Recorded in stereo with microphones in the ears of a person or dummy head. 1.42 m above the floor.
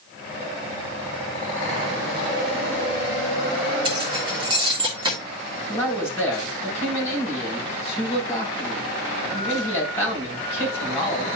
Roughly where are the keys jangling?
Right.